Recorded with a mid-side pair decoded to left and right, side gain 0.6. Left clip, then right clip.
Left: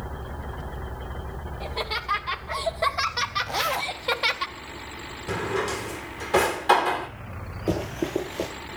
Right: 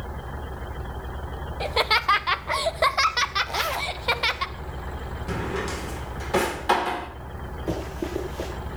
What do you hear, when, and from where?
1.6 s laughter: 55° right, 1.3 m; by 4.5 s 10° right, 2.0 m
3.5 s a zipper: 10° left, 0.6 m
5.3 s a drawer: straight ahead, 3 m
7.7 s running footsteps: 20° left, 8.5 m